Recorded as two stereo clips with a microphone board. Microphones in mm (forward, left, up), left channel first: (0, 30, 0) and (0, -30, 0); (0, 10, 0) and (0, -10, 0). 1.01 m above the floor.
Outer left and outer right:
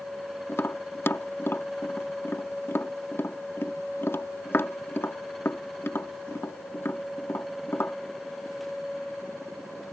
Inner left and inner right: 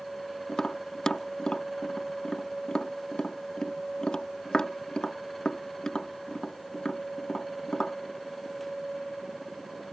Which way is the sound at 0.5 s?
50° left (ahead or behind).